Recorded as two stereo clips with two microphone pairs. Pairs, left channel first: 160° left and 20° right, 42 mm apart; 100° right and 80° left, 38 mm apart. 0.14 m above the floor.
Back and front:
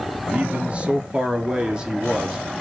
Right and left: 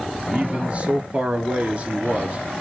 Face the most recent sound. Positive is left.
turn(degrees=55)